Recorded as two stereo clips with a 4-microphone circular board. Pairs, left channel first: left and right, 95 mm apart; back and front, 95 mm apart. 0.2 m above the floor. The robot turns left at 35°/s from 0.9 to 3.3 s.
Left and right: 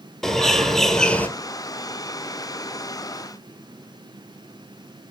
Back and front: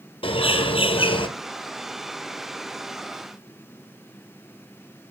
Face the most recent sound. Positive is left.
turn(degrees=90)